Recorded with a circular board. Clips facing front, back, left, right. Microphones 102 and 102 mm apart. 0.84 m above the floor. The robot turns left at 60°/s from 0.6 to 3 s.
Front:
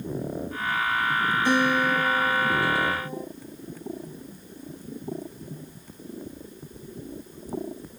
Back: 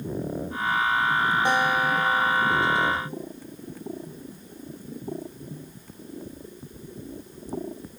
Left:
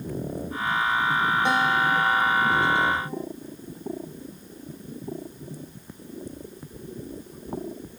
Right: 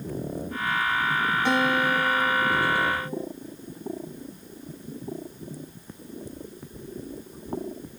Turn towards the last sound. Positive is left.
turn(degrees=65)